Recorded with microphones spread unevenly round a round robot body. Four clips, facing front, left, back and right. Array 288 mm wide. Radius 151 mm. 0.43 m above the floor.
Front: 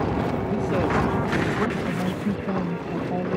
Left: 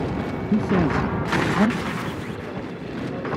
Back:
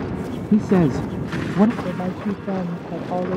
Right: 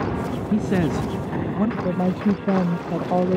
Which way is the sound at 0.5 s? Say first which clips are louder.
Left 1 dB, back 8 dB; straight behind.